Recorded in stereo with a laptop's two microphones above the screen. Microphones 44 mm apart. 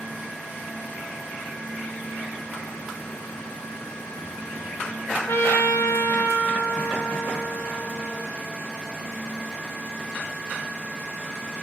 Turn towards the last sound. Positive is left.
turn(degrees=65)  # may be behind; listen again after turning